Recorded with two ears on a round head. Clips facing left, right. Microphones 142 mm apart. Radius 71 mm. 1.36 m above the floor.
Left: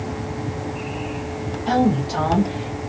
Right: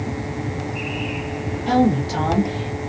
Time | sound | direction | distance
1.7 | a woman speaking | 5° right (ahead or behind) | 1.4 m